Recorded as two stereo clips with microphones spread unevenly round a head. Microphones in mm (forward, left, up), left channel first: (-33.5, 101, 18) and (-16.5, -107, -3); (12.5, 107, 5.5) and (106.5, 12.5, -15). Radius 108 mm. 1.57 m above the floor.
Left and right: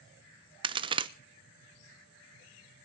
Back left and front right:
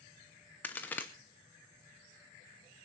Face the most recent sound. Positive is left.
turn(degrees=-155)